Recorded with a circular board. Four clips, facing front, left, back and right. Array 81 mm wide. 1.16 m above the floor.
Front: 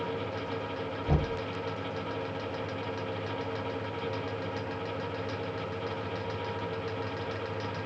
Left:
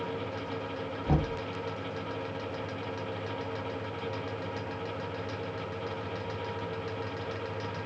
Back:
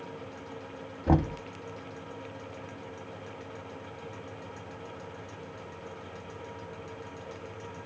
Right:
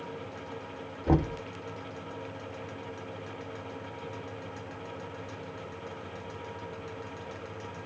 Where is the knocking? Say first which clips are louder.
Right 4 dB, back 6 dB; 165° right, 1.0 m.